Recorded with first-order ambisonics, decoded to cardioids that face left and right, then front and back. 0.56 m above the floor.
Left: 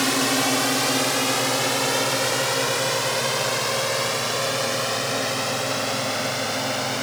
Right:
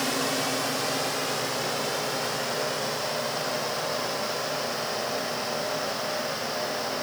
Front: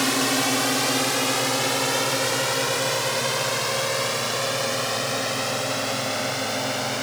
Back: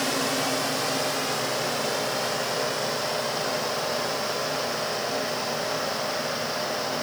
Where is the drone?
50° left.